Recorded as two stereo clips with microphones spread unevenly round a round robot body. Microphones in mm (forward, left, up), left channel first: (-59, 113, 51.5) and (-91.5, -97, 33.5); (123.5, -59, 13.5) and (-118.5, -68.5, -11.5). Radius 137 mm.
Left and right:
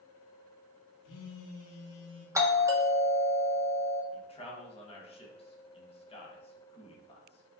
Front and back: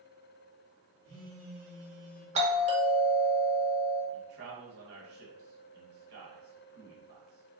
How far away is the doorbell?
About 0.8 m.